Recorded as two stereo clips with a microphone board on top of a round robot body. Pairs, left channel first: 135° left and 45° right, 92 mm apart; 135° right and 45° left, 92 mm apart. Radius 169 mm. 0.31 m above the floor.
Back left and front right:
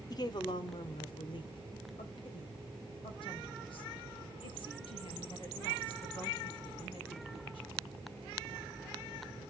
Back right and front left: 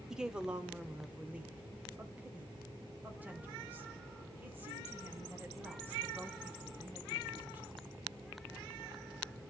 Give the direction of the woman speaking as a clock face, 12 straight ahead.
8 o'clock.